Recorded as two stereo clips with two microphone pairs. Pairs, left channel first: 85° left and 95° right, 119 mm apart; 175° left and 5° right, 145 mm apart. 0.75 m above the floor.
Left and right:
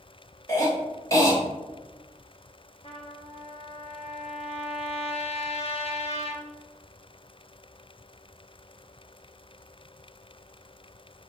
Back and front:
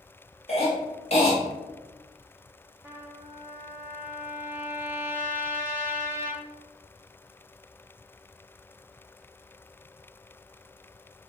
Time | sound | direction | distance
0.5 | a cough | 140° left | 1.8 m
2.8 | a trumpet | 70° left | 0.8 m